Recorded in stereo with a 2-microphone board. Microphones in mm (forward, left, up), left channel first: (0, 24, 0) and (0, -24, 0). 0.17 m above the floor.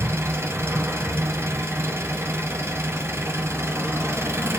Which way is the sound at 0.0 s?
60° right (ahead or behind).